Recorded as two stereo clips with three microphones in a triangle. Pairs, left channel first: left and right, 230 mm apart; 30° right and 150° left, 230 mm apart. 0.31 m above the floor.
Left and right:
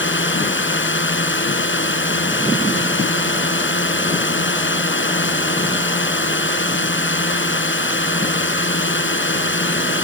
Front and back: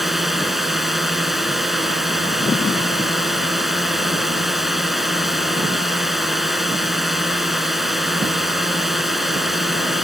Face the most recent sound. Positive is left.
turn(degrees=60)